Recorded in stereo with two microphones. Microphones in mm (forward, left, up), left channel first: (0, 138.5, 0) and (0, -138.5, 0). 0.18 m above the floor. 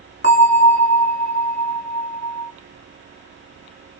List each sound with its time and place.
0.2 s a bell: 40° left (ahead or behind), 1.8 m